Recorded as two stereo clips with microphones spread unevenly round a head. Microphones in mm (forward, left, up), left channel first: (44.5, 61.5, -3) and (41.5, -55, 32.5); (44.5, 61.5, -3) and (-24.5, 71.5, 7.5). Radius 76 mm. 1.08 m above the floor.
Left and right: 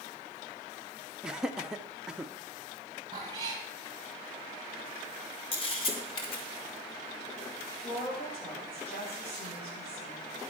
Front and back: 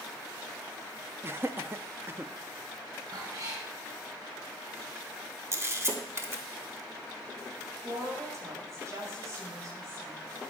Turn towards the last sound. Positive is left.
turn(degrees=130)